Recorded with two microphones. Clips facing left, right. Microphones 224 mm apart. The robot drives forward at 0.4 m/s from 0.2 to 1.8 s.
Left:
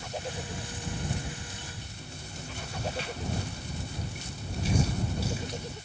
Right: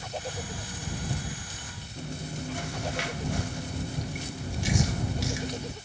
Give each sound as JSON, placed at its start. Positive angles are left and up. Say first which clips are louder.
{"t": 2.0, "sound": "chewing", "louder": "right 13 dB", "side_deg": -80, "distance_m": 0.8}